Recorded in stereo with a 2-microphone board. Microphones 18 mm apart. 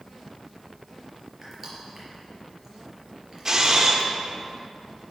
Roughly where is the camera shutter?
Right.